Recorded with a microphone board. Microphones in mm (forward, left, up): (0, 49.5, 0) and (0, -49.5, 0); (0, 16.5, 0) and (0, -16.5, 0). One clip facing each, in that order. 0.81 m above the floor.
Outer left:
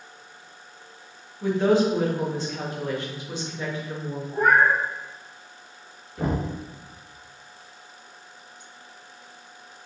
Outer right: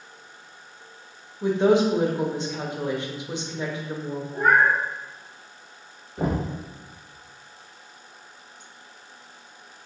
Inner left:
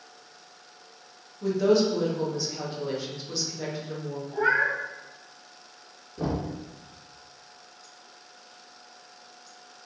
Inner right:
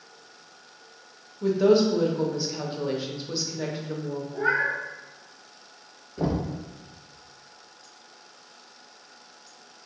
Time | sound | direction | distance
1.4 | a woman speaking | 20° right (ahead or behind) | 0.8 m
4.3 | a cat meowing | 80° left | 2.0 m
6.2 | knocking | 15° right (ahead or behind) | 0.9 m